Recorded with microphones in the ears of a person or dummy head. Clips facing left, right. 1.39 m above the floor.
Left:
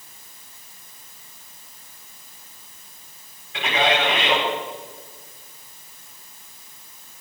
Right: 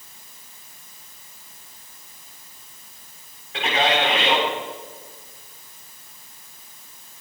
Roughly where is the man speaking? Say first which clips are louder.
Even; right.